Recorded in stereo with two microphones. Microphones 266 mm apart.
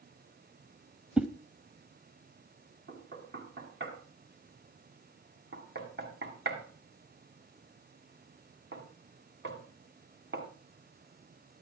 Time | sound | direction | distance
1.2 | a whoosh | 5° right (ahead or behind) | 0.9 m
2.9 | knocking | 45° right (ahead or behind) | 2 m